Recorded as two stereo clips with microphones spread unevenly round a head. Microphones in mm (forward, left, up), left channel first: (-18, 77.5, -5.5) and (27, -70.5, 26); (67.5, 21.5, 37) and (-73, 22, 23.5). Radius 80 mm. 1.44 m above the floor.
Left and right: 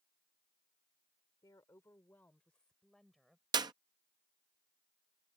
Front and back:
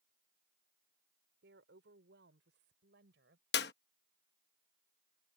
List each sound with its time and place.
1.4 s a woman speaking: straight behind; by 3.4 s 160° right
3.5 s a clap: 15° right